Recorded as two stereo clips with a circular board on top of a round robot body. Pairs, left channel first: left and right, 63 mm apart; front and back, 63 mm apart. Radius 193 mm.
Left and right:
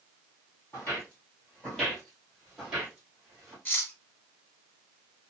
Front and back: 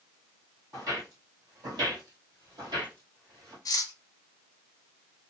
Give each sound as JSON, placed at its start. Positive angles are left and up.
{"t": 0.7, "sound": "footsteps", "azimuth_deg": 135, "distance_m": 1.7}
{"t": 3.6, "sound": "cutlery clinking", "azimuth_deg": 25, "distance_m": 0.7}